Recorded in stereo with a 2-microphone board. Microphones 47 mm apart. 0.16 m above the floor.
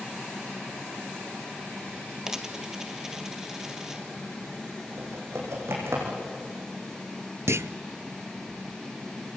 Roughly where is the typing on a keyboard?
Right.